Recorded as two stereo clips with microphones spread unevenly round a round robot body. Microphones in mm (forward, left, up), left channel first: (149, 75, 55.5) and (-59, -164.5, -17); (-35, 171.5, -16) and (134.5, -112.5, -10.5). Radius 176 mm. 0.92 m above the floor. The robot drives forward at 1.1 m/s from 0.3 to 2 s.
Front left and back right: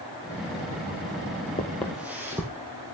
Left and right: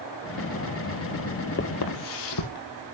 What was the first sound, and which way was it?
Footsteps, 85° left.